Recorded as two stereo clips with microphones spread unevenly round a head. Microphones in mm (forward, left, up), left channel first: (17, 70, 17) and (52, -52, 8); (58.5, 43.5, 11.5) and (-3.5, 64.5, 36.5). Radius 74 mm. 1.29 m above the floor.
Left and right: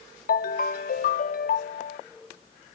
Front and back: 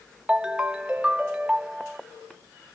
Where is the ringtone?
95° left.